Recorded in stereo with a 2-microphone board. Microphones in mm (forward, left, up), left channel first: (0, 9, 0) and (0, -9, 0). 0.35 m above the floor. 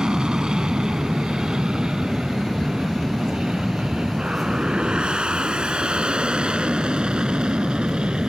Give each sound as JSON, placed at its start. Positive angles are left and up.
{"t": 0.0, "sound": "an aircraft", "side_deg": -55}